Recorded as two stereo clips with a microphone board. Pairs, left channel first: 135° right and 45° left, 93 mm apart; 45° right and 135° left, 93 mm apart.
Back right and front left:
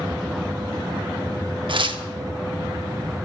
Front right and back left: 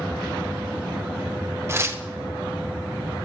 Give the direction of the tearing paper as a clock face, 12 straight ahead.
10 o'clock.